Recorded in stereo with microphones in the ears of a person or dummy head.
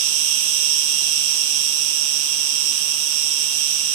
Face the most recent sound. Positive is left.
turn(degrees=-65)  # may be behind; listen again after turning